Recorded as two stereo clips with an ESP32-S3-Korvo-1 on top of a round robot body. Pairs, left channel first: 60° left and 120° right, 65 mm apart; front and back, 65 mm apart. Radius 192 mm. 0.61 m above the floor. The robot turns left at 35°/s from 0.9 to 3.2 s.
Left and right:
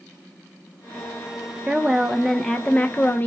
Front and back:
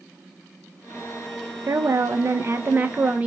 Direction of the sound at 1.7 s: 170° left.